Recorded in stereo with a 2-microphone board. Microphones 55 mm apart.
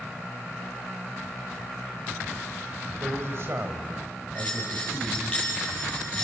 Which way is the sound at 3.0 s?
55° right (ahead or behind).